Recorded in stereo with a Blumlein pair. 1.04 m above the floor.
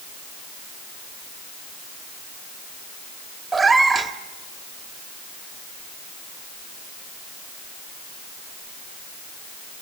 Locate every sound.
3.5 s a cat meowing: 10° right, 1.6 m